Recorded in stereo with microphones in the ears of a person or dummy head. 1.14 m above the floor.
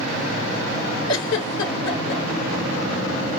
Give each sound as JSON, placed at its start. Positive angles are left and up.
{"t": 1.1, "sound": "a giggle", "side_deg": 65, "distance_m": 1.5}